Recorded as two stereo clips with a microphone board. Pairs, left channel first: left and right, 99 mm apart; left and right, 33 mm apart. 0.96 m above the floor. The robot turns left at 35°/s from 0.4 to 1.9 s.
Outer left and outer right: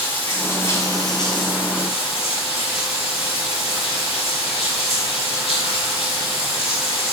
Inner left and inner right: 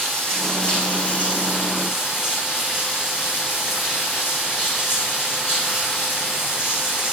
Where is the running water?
165° left, 5 m; by 7.1 s 110° left, 5 m.